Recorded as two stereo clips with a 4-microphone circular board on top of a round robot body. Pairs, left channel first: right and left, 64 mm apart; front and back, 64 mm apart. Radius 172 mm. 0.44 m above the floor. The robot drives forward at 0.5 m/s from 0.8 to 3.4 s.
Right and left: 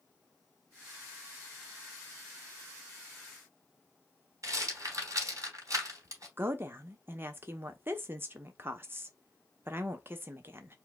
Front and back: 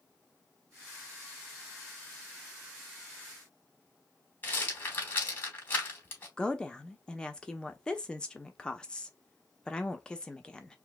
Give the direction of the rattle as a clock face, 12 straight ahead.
10 o'clock.